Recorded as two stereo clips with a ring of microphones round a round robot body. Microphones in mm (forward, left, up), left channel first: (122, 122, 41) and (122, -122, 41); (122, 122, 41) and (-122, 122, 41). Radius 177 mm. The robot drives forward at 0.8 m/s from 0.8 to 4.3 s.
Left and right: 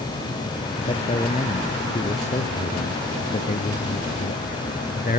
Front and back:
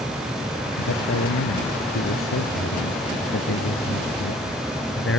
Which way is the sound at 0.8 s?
25° left.